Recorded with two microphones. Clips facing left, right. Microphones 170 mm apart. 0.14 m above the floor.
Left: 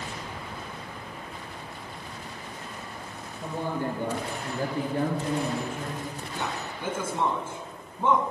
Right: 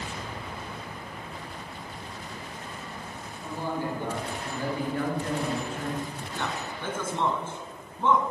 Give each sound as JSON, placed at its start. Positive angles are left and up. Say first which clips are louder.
{"t": 3.4, "sound": "a man speaking", "louder": "left 2 dB", "side_deg": 60, "distance_m": 2.5}
{"t": 6.3, "sound": "a man speaking", "louder": "right 1 dB", "side_deg": 10, "distance_m": 1.1}